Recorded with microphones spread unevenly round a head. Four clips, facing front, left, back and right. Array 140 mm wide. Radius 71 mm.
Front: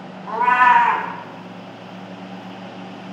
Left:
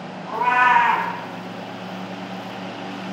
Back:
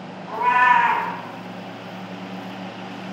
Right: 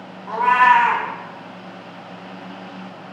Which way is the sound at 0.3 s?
15° right.